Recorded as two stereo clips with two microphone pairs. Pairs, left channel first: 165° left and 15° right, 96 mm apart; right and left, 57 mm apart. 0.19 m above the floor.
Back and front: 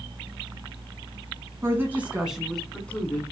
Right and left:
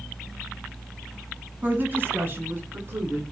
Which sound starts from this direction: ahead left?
A woman speaking, at 1.6 s.